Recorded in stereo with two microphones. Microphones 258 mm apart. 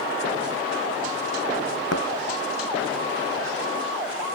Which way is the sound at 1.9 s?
75° left (ahead or behind).